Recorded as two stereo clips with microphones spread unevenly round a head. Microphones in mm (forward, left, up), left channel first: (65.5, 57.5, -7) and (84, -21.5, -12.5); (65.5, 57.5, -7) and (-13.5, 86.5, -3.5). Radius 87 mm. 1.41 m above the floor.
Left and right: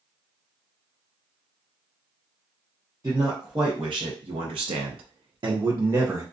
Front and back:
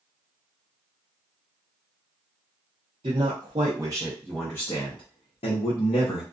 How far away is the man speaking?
About 1.0 m.